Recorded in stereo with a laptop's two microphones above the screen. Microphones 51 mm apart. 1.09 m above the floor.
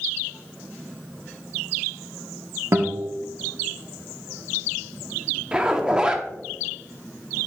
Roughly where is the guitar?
Right.